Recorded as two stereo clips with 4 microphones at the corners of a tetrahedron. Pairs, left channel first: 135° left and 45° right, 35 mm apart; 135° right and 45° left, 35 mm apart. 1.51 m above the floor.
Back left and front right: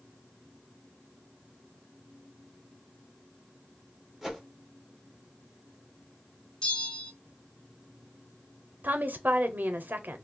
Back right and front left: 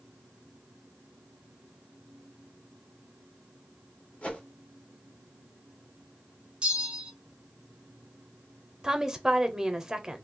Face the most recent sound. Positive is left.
turn(degrees=-30)